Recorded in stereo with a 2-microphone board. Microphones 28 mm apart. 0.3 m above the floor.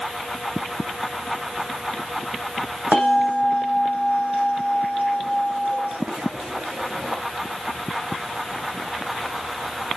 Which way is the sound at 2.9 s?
80° right.